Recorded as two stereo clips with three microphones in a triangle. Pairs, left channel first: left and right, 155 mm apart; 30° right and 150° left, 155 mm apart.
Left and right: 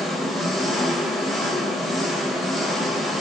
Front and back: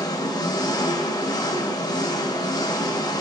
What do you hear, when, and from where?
0.0 s an engine running: straight ahead, 1.0 m